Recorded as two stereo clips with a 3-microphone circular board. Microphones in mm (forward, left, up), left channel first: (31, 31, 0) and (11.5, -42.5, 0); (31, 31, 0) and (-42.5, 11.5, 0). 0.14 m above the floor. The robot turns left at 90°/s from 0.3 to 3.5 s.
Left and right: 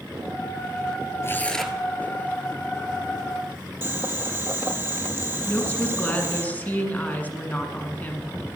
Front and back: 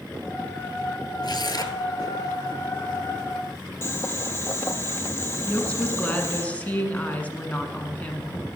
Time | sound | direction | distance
1.2 | tearing paper | 25° left | 0.9 m
3.8 | boiling | 45° right | 1.1 m
5.5 | a woman speaking | 50° left | 1.6 m